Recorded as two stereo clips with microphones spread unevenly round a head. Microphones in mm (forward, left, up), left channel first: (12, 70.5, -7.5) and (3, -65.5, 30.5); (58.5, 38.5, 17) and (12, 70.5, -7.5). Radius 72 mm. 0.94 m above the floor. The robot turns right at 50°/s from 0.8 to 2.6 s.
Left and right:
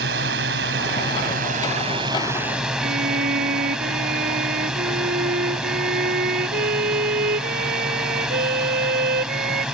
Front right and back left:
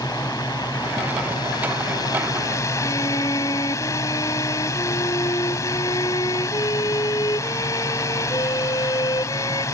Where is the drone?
100° right; by 9.8 s 10° right.